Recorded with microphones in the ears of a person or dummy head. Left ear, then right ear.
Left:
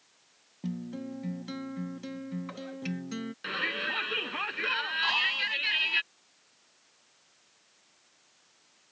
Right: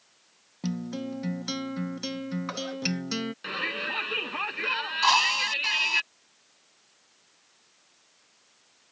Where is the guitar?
55° right (ahead or behind).